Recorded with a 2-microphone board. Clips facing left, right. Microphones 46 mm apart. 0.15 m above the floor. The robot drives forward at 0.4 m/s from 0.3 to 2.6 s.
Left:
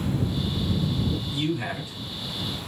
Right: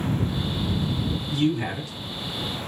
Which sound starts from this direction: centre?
A man speaking, at 1.3 s.